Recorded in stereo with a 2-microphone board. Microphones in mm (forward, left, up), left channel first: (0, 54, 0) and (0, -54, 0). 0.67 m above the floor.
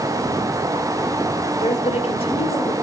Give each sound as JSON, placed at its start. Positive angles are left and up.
{"t": 1.6, "sound": "a woman speaking", "side_deg": 70, "distance_m": 1.5}